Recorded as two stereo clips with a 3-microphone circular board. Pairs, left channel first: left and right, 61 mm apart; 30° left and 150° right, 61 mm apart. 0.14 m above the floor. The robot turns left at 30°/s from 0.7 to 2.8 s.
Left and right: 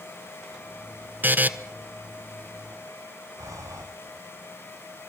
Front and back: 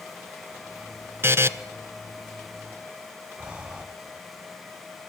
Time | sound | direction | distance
1.2 | a buzzer | 130° right | 0.7 m
3.4 | breathing | 80° right | 3.5 m